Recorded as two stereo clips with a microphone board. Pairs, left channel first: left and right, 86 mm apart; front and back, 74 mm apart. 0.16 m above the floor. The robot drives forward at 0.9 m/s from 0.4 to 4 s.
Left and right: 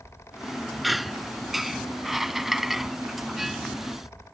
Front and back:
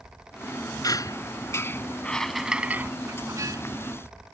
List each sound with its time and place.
0.8 s a squeak: straight ahead; by 3.6 s 175° right